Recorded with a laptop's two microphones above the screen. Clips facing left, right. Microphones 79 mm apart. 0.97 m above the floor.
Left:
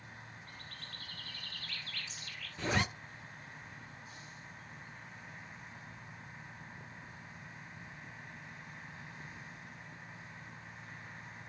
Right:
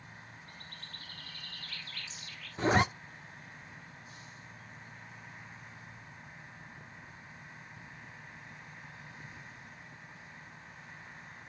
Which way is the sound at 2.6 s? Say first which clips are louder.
Right 7 dB; 35° right (ahead or behind).